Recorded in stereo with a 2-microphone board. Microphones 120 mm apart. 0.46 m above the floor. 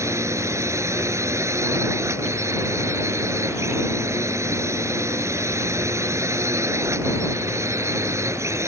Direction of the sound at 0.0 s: 25° right (ahead or behind).